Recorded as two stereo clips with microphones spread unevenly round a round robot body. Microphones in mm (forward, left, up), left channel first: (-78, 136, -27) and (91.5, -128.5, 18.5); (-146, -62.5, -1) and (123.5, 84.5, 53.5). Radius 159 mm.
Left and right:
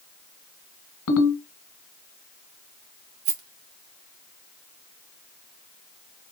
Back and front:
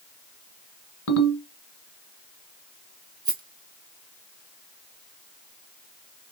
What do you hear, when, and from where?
1.1 s a ringtone: 165° left, 1.6 m
3.2 s a rattle: 55° right, 1.3 m